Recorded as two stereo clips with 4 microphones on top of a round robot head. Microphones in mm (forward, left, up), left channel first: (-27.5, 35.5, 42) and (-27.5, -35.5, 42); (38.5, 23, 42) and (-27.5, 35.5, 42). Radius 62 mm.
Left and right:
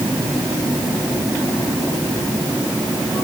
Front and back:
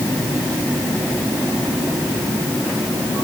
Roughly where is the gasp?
I don't hear a gasp.